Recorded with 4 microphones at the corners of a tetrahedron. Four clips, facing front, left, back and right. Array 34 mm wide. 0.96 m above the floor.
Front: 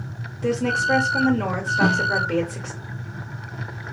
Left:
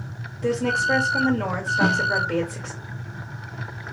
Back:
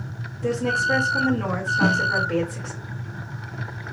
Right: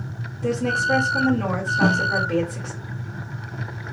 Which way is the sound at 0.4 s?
40° left.